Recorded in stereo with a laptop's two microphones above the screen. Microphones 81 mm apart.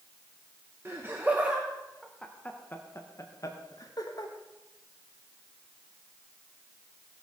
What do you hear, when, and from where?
0.8 s laughter: 30° right (ahead or behind), 1.2 m; by 4.3 s 55° left (ahead or behind), 1.6 m